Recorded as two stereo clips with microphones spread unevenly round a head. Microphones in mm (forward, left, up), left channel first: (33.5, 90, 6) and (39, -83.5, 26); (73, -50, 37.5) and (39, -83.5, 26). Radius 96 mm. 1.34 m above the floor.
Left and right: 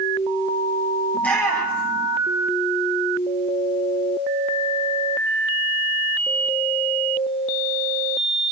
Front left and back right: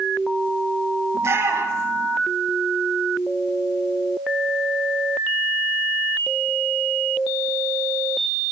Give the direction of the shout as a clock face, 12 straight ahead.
6 o'clock.